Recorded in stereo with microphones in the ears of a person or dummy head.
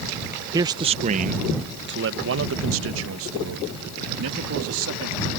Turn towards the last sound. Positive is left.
turn(degrees=-75)  # may be behind; listen again after turning